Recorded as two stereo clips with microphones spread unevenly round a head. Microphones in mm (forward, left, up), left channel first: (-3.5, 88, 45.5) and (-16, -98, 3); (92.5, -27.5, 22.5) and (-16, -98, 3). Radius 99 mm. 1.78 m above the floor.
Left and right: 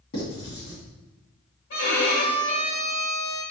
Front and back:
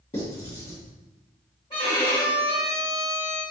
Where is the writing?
80° left, 1.9 m.